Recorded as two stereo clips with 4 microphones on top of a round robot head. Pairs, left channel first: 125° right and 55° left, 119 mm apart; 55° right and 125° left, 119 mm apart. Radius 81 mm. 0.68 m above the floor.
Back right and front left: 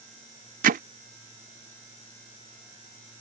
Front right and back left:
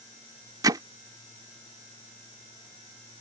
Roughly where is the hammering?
Ahead left.